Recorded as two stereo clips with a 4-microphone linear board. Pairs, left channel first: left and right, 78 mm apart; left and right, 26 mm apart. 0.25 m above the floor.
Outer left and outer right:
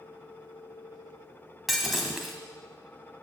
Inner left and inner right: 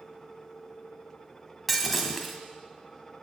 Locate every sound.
1.7 s breaking glass: centre (ahead or behind), 0.9 m